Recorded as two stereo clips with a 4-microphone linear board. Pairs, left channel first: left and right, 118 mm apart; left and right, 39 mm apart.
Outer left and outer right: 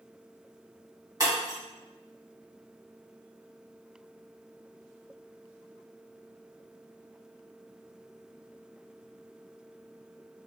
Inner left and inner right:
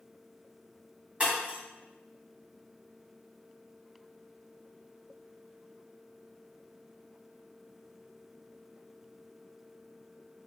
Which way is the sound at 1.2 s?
30° right (ahead or behind).